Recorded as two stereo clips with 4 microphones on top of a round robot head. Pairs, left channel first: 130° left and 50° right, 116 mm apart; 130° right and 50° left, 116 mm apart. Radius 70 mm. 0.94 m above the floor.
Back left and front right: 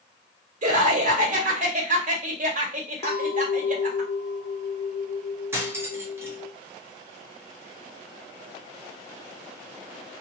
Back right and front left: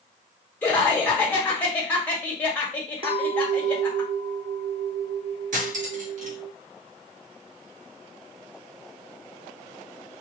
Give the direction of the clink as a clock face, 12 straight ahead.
9 o'clock.